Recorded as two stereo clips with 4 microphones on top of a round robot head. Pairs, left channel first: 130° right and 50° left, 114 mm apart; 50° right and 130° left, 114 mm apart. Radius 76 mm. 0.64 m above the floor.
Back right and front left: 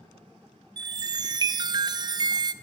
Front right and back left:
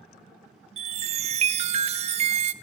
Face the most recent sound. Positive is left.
turn(degrees=105)